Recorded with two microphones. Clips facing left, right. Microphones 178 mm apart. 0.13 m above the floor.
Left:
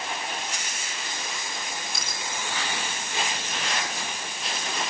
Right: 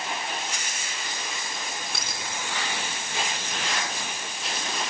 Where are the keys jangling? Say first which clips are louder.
Even; 70° right (ahead or behind), 8.5 m.